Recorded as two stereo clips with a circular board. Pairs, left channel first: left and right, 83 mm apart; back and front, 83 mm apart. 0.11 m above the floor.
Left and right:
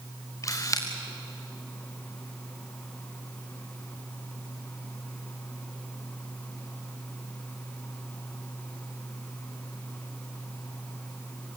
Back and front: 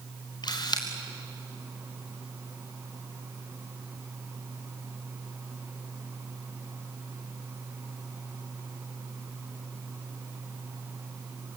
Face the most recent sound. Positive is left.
turn(degrees=140)